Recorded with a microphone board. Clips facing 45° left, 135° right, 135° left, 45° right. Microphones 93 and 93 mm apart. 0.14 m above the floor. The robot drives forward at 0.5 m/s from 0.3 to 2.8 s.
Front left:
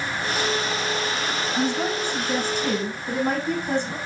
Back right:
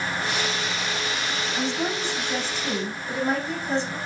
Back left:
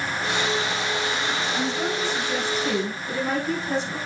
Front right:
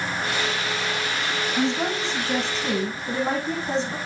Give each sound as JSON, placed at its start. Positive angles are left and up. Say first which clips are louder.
{"t": 1.6, "sound": "a woman speaking", "louder": "front left 3 dB, front right 2 dB", "azimuth_deg": 15, "distance_m": 8.0}